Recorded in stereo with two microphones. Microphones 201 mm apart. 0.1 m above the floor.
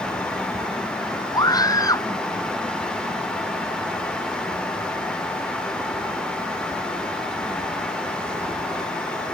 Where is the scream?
20° left (ahead or behind).